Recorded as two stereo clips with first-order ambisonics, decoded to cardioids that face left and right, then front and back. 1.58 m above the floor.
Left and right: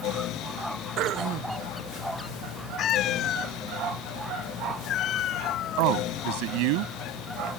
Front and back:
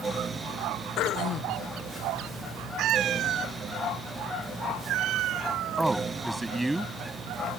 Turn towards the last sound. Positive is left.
turn(degrees=-95)